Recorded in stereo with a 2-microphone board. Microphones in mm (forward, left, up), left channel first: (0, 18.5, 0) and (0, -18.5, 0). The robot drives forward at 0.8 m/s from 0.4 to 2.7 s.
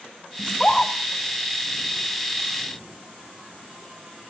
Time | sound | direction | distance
0.4 | a scream | 15° left (ahead or behind) | 2 m